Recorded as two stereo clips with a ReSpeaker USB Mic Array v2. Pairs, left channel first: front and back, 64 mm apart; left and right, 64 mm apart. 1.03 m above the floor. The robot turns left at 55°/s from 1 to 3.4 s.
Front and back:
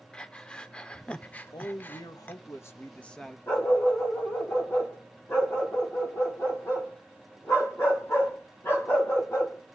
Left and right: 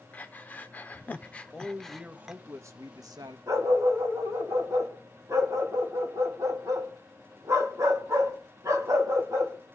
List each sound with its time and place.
0.1 s breathing: 60° left, 0.7 m; by 2.4 s 15° right, 0.7 m
1.5 s a man speaking: 15° left, 1.2 m; by 3.4 s 90° right, 1.2 m
3.5 s a dog barking: 50° right, 3 m